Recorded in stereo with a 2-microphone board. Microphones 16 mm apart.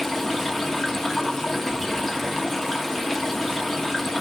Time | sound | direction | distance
0.0 | running water | 20° left (ahead or behind) | 1.7 m